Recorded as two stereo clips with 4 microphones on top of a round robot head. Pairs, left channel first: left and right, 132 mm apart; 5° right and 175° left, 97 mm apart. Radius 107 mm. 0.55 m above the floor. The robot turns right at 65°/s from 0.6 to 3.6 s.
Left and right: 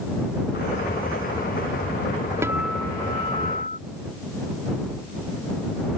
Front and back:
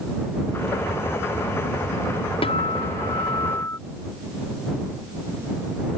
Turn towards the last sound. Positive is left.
turn(degrees=55)